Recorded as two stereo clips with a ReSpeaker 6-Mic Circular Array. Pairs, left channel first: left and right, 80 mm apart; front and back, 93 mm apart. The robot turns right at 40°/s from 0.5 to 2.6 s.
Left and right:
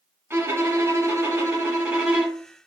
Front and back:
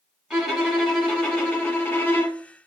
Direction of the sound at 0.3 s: 100° right.